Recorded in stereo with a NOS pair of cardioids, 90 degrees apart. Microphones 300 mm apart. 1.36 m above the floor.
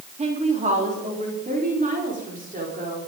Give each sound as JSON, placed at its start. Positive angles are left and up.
{"t": 0.2, "sound": "a woman speaking", "azimuth_deg": -25, "distance_m": 3.5}